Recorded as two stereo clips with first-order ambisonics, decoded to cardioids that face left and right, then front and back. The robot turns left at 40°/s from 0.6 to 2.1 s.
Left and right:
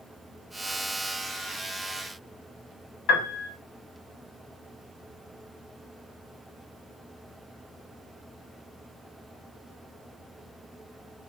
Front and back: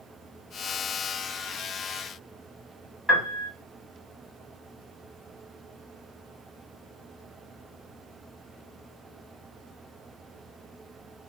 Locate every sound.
3.1 s a piano: 85° left, 0.9 m